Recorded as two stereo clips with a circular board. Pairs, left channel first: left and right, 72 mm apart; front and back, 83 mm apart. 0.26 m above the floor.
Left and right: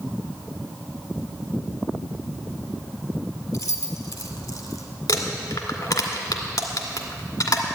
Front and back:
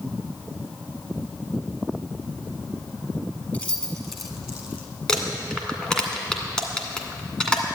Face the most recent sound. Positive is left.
turn(degrees=80)